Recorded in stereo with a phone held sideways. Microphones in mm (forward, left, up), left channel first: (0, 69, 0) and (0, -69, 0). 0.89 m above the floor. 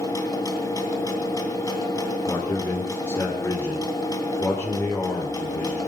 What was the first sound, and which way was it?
A machine running, 25° left (ahead or behind).